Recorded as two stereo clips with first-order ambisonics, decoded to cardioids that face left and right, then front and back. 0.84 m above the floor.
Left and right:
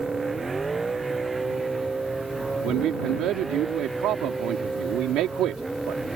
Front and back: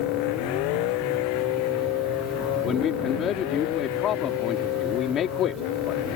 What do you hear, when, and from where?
0.0 s a vehicle: 10° right; by 6.2 s 5° right
2.6 s a man speaking: 50° right